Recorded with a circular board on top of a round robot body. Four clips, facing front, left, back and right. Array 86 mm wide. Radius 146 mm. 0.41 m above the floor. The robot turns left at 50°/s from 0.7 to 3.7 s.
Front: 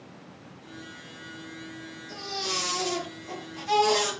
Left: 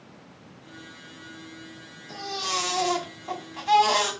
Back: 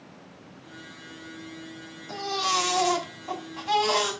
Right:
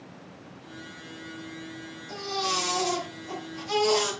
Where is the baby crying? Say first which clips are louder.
Right 1 dB, back 8 dB; straight behind, 3 m; by 4.1 s 100° left, 3 m.